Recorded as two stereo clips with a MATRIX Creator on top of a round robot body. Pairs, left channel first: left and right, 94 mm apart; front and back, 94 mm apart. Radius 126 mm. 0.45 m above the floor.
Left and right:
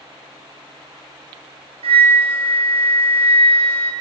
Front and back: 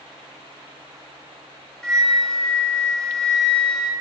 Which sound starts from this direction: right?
A flute, at 1.8 s.